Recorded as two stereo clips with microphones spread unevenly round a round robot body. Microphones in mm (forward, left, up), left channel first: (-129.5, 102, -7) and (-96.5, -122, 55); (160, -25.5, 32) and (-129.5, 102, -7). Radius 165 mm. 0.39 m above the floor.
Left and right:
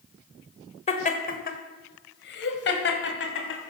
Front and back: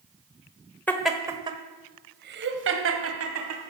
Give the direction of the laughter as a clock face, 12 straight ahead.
10 o'clock.